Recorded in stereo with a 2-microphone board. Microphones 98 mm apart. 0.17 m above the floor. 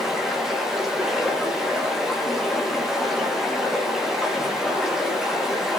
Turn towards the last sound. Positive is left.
turn(degrees=-5)  # may be behind; listen again after turning